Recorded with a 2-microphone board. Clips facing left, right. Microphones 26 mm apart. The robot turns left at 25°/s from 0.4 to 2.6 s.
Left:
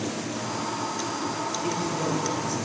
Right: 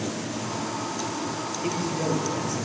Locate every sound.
1.6 s a man speaking: 15° right (ahead or behind), 4.5 m; by 2.6 s 5° left (ahead or behind), 4.5 m